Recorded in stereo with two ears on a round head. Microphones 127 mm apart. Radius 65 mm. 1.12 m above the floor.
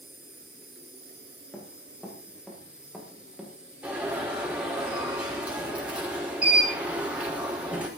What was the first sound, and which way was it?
An insect, 10° right (ahead or behind).